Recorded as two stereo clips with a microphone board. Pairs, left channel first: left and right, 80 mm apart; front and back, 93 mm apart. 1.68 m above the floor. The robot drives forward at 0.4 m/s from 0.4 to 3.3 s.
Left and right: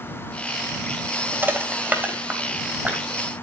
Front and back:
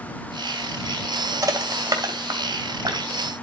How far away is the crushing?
About 2 m.